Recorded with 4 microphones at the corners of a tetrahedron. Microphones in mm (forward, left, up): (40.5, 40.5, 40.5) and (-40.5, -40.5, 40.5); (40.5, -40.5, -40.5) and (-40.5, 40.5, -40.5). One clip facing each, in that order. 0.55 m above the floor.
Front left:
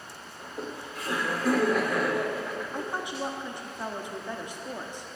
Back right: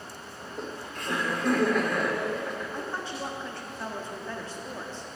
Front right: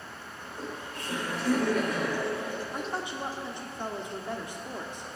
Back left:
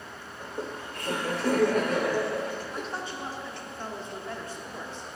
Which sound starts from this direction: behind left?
Laughter, at 0.4 s.